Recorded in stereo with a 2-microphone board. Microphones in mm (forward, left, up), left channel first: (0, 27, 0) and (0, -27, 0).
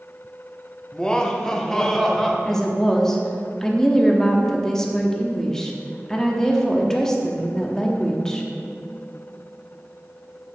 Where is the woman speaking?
10° left (ahead or behind), 0.8 m.